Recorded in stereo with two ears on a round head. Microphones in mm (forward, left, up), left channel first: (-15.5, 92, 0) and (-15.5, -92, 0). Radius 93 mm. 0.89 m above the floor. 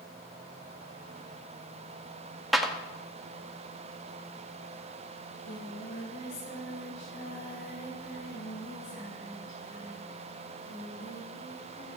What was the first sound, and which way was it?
A clap, centre (ahead or behind).